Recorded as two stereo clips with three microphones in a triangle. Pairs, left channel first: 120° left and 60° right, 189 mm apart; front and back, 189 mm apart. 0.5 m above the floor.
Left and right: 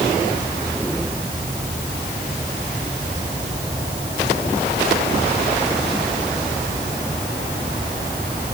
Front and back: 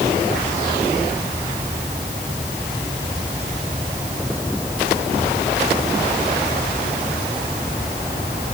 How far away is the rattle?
No rattle in this recording.